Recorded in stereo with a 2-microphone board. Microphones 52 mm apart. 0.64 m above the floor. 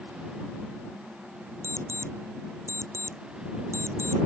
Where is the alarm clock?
55° right (ahead or behind).